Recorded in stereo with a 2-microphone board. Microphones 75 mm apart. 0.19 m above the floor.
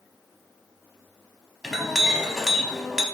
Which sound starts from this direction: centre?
A clink, at 1.6 s.